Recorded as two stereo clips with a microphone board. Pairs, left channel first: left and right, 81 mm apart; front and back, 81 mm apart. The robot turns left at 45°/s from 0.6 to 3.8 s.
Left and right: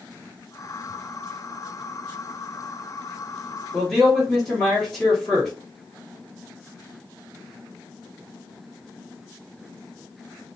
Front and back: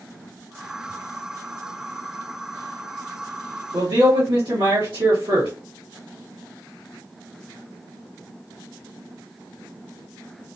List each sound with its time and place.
3.7 s a man speaking: 175° left, 1.8 m; by 5.5 s 170° left, 1.8 m